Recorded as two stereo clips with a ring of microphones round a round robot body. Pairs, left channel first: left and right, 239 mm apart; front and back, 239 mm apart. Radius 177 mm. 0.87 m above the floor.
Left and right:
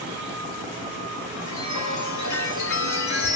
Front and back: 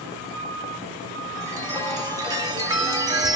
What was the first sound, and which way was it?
A chime, 105° left.